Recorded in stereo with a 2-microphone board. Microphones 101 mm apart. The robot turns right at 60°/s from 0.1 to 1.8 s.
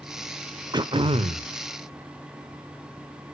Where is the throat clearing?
135° right, 0.7 m; by 1.5 s 90° right, 0.7 m.